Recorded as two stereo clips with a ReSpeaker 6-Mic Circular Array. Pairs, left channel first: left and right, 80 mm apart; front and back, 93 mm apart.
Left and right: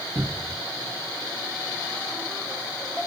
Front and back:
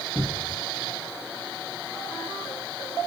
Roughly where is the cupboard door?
Right.